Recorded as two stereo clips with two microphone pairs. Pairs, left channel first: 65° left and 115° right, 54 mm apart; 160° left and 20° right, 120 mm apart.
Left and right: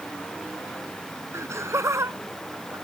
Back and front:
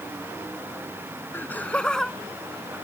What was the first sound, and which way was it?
Laughter, 130° right.